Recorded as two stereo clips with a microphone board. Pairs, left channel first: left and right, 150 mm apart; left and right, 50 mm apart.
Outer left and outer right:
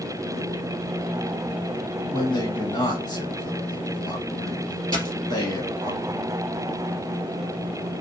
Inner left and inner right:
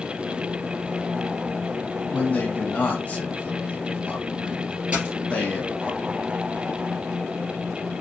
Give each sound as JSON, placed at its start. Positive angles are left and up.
{"t": 2.1, "sound": "a man speaking", "side_deg": 30, "distance_m": 1.3}
{"t": 4.9, "sound": "a dropped coin", "side_deg": -30, "distance_m": 2.0}